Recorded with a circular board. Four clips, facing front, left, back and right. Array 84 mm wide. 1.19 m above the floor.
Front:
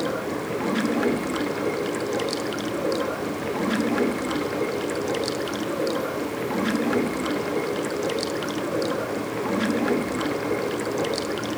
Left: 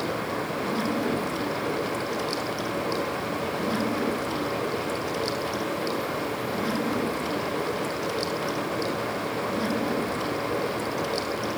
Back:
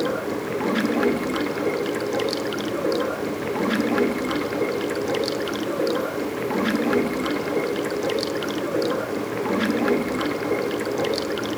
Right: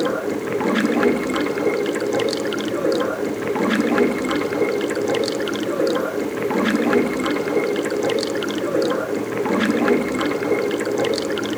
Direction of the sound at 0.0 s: 100° right.